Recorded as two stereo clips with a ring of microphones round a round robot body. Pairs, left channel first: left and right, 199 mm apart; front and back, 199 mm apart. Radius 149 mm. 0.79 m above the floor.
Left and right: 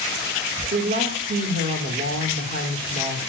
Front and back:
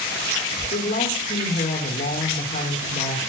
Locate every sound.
0.7 s a woman speaking: 55° right, 2.5 m